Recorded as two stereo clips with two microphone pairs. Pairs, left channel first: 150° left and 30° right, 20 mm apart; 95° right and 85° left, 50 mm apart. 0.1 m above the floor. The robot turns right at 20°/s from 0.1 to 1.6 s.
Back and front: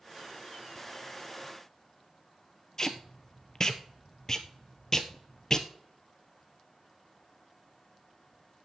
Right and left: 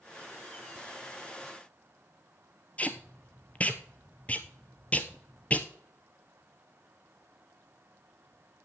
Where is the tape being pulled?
150° right, 1.1 m.